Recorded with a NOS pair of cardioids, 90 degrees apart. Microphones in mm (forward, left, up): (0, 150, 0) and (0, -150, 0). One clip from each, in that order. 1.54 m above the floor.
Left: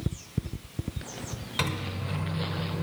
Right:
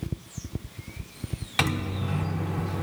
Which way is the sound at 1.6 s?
35° right.